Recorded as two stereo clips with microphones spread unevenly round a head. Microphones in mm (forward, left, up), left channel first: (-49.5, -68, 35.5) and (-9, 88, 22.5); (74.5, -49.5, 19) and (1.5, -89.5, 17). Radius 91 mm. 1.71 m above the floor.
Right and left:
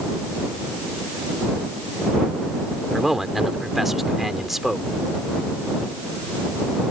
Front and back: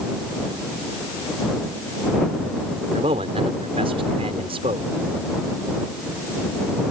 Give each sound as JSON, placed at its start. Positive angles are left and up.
{"t": 2.9, "sound": "a man speaking", "azimuth_deg": 165}